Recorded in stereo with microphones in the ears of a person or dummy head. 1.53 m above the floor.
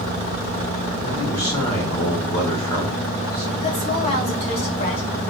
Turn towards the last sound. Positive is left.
turn(degrees=25)  # may be behind; listen again after turning